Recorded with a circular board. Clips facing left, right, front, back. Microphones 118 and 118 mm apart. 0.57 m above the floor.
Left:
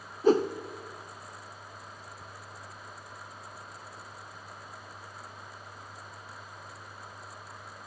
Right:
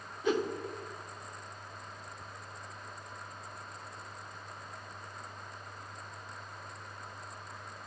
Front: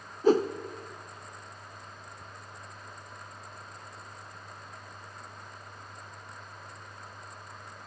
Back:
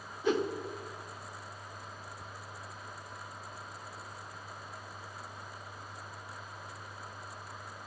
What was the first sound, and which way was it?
A whoosh, 45° left.